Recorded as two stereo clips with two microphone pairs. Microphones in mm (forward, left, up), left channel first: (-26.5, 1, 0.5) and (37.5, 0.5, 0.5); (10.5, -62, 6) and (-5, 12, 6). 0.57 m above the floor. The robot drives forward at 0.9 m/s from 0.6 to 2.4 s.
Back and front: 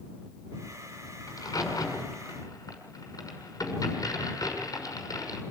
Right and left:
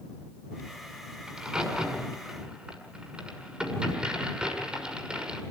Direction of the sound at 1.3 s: Straight behind.